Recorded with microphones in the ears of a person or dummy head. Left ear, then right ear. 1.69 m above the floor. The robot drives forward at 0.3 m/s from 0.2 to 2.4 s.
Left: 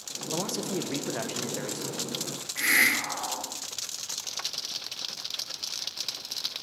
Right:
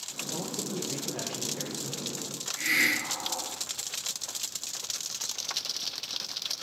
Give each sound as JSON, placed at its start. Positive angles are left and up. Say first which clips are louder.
{"t": 0.3, "sound": "a man speaking", "louder": "left 6 dB", "side_deg": 60, "distance_m": 0.6}
{"t": 2.6, "sound": "a hiss", "louder": "left 3 dB", "side_deg": 50, "distance_m": 1.0}